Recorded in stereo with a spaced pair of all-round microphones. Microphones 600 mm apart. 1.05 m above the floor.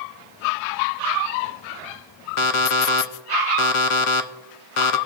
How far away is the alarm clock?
About 0.6 m.